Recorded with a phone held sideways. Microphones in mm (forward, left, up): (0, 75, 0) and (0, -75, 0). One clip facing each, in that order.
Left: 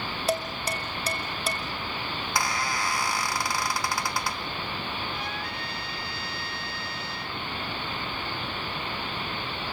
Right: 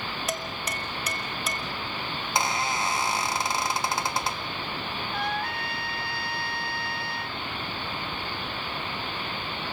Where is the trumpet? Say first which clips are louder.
Right 5 dB; 65° right (ahead or behind), 1.1 m.